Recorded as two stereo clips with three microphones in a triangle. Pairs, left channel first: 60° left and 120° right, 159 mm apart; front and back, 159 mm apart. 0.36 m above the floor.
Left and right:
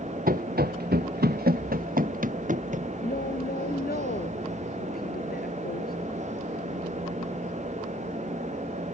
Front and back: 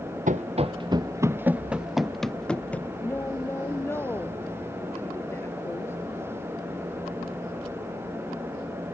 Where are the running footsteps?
145° right; by 2.9 s 80° right.